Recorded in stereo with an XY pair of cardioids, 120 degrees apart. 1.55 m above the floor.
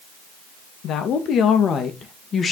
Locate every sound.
0.8 s a woman speaking: 65° left, 2 m; by 2.5 s 40° left, 2 m